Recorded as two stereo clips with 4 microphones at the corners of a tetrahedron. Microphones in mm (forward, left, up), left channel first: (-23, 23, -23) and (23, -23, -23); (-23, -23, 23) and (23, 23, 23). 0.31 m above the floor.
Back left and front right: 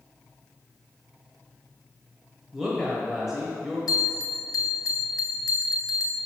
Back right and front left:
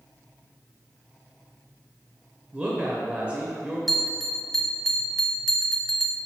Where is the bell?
135° left, 0.8 m.